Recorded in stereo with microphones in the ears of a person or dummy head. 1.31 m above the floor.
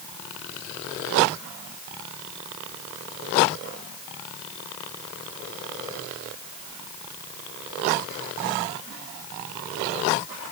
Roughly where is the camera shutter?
I don't hear a camera shutter.